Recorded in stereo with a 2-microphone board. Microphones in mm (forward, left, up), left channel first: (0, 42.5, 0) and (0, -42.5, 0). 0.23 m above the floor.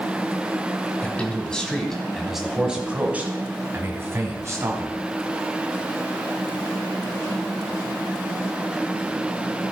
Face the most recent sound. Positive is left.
turn(degrees=-40)  # may be behind; listen again after turning